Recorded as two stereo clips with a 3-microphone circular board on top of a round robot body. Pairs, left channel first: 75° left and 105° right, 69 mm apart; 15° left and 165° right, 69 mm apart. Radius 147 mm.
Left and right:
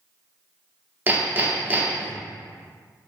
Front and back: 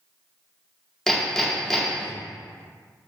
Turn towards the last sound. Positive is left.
turn(degrees=-65)